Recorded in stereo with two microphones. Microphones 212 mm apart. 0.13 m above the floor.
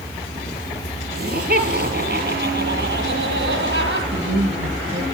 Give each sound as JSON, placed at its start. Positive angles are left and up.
{"t": 1.1, "sound": "laughter", "side_deg": -50, "distance_m": 3.0}
{"t": 4.1, "sound": "a woman speaking", "side_deg": -65, "distance_m": 4.5}